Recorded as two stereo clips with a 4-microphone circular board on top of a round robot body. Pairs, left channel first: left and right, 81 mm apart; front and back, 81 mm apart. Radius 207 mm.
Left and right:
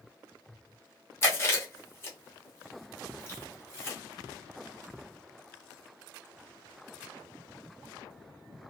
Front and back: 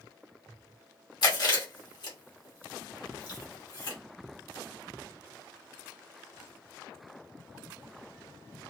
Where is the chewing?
30° left, 1.3 m.